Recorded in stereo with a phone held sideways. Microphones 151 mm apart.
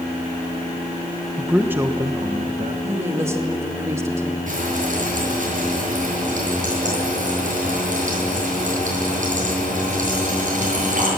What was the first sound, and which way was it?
A man speaking, centre (ahead or behind).